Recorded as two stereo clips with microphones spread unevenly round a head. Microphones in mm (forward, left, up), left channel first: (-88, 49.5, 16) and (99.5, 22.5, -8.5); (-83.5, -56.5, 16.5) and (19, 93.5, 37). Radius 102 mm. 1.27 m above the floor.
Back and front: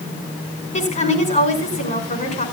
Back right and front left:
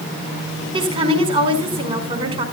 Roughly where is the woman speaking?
Behind left.